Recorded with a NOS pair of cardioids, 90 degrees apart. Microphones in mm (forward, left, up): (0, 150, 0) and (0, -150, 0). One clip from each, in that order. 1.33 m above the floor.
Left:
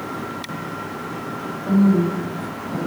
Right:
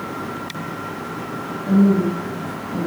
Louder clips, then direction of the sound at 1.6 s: Right 1 dB; 15° left.